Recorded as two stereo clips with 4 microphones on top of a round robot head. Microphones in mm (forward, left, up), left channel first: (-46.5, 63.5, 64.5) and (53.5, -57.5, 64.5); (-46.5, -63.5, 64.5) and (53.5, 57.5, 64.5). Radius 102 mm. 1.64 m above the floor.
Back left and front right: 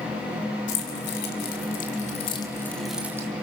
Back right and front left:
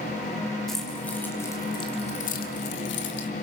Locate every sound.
0.7 s keys jangling: 140° left, 3.5 m; by 3.3 s 125° right, 2 m